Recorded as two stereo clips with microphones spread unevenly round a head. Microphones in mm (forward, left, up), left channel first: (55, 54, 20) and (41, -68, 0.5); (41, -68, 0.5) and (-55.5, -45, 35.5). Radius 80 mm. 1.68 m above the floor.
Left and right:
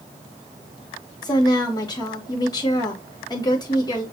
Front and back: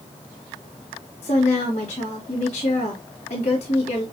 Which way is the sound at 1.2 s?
30° left.